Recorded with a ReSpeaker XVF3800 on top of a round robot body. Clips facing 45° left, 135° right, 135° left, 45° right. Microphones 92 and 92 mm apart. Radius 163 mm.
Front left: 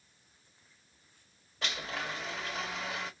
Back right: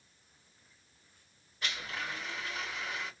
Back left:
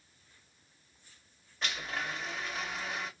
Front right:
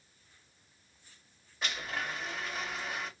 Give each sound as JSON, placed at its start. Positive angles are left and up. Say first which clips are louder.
{"t": 1.6, "sound": "a blender", "louder": "front left 2 dB, even", "azimuth_deg": 40, "distance_m": 1.3}